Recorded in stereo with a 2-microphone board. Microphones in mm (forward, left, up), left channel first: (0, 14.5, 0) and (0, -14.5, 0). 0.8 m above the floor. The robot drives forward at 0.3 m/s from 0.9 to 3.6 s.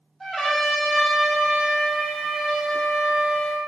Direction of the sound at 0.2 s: 10° left (ahead or behind).